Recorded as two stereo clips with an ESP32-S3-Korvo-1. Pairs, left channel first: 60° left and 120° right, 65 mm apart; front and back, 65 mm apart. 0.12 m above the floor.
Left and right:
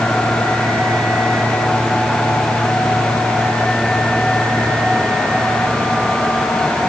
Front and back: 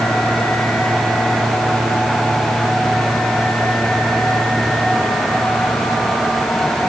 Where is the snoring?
I don't hear snoring.